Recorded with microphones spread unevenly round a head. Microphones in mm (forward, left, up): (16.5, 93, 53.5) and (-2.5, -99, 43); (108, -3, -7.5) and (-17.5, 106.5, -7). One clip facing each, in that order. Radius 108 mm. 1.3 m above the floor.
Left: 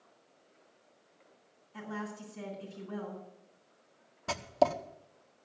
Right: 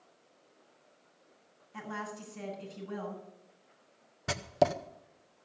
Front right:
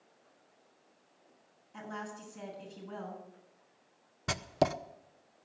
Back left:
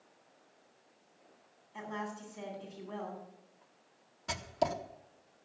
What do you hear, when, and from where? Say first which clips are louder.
1.7 s a woman speaking: left 1 dB, back left 2 dB; 55° right, 8 m
4.3 s writing: even, front right 3 dB; 20° right, 0.8 m